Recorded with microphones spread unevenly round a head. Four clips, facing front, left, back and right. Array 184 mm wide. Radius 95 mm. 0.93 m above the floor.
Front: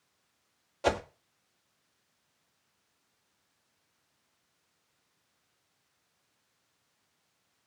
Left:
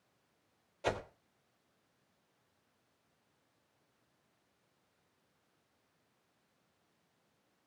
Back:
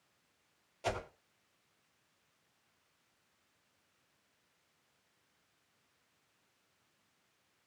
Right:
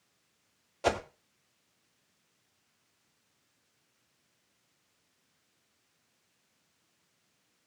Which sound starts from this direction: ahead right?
A whoosh, at 0.8 s.